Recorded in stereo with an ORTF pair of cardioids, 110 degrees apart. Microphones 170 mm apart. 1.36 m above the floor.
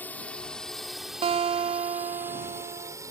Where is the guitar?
35° right.